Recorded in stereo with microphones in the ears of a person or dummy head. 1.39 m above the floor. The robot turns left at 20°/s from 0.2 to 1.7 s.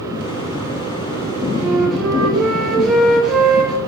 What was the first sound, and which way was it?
A flute, 5° right (ahead or behind).